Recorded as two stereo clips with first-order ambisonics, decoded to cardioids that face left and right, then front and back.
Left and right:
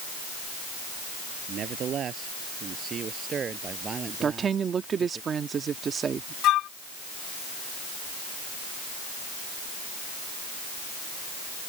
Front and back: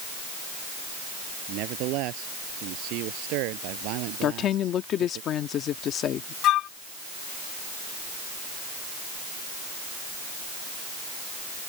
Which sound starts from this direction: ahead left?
A flute, at 6.4 s.